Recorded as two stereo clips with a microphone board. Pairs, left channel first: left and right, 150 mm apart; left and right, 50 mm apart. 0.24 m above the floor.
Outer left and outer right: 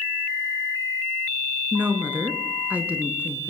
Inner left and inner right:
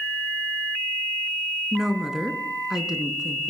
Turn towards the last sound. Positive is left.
turn(degrees=-10)  # may be behind; listen again after turning